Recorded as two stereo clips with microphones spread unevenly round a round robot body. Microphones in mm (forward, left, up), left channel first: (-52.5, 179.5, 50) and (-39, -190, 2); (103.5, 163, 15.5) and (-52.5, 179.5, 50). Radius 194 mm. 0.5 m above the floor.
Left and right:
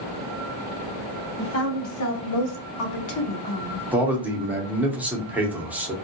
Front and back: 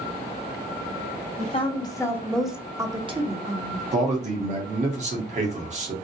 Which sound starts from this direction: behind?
A man speaking, at 3.9 s.